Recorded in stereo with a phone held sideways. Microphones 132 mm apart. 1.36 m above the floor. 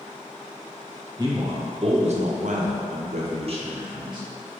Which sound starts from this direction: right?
A man speaking, at 1.2 s.